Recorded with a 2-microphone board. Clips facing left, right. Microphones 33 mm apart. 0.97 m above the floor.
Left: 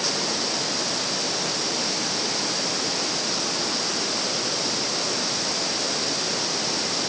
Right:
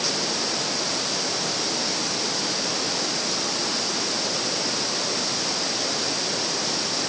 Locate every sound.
Only background noise.